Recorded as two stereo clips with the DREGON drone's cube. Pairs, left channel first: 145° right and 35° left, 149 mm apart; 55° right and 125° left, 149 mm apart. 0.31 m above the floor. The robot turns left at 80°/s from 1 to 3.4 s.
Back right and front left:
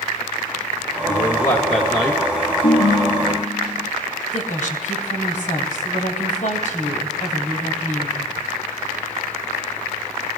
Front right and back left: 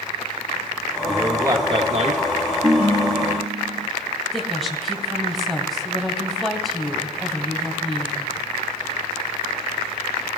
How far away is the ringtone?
About 3.5 m.